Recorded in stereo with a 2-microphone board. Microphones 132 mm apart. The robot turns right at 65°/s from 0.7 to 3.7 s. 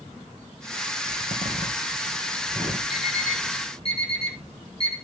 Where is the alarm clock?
5° right (ahead or behind), 3.5 m; by 5.0 s 45° left (ahead or behind), 3.5 m.